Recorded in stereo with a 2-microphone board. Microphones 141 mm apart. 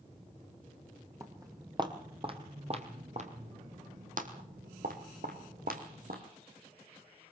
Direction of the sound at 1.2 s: 20° right (ahead or behind).